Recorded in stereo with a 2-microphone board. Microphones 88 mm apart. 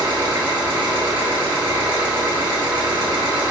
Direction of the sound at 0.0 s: 55° right (ahead or behind).